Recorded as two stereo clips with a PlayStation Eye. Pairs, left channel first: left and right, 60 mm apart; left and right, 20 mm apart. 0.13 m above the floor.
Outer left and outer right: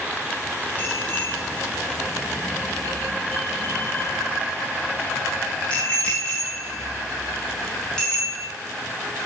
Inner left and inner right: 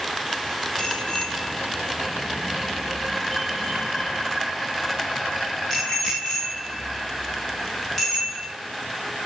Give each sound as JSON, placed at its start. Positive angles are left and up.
{"t": 0.8, "sound": "a bicycle bell", "side_deg": 35, "distance_m": 8.0}